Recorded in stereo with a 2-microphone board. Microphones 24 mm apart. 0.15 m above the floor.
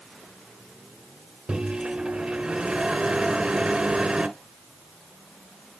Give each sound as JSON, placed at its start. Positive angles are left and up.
{"t": 1.5, "sound": "a microwave", "side_deg": -35, "distance_m": 1.3}